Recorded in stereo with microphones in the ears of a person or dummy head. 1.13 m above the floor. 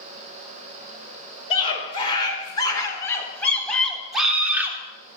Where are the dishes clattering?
No dishes clattering in this recording.